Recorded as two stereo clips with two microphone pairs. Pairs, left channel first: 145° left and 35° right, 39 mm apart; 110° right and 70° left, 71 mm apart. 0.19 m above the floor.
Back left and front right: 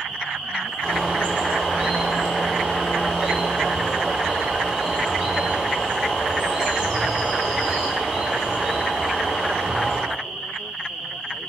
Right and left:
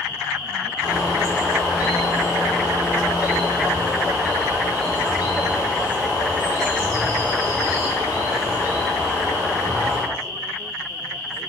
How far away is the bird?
About 0.8 m.